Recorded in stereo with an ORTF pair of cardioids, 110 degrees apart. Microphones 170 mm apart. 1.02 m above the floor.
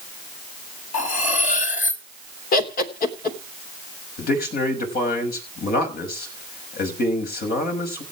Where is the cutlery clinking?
45° left, 3.5 m.